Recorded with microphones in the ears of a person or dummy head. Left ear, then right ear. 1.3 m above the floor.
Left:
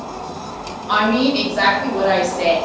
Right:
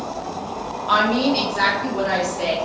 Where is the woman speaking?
50° right (ahead or behind), 0.9 m; by 2.5 s centre (ahead or behind), 1.7 m.